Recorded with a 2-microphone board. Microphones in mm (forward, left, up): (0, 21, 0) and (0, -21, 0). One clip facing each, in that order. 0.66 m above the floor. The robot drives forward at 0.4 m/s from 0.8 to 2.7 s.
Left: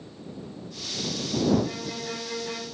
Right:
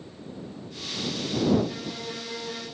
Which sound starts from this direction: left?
A violin, at 1.6 s.